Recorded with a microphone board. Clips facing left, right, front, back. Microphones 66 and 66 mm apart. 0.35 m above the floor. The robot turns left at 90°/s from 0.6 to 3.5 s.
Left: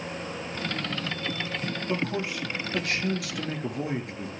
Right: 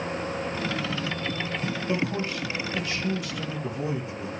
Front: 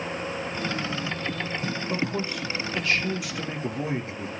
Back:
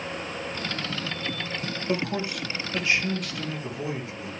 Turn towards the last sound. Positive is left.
turn(degrees=55)